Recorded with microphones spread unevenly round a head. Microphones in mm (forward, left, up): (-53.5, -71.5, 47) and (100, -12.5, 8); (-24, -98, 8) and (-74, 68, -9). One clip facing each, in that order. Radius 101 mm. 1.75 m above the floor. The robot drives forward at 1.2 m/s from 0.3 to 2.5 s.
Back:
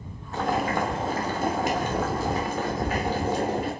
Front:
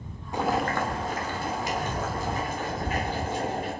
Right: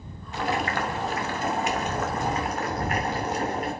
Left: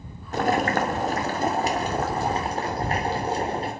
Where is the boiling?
110° left, 1.2 m; by 3.7 s 170° left, 3 m.